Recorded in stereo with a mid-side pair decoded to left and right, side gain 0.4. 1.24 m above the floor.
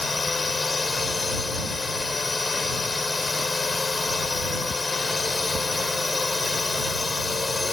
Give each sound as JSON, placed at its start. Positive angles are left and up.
{"t": 0.0, "sound": "a drone", "azimuth_deg": 35}